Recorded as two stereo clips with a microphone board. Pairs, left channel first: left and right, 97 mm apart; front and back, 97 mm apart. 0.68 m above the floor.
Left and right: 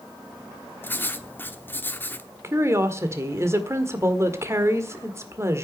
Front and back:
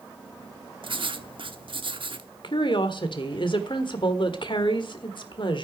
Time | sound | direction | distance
0.8 | writing | 155° left | 1.0 m
2.4 | a woman speaking | 30° right | 1.6 m